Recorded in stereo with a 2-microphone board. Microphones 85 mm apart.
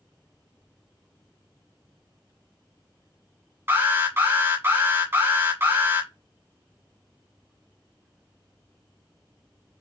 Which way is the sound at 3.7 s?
25° right (ahead or behind).